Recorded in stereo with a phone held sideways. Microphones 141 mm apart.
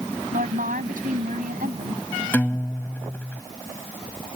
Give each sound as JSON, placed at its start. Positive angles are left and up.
{"t": 0.3, "sound": "a woman speaking", "side_deg": -75}
{"t": 2.3, "sound": "a guitar", "side_deg": 15}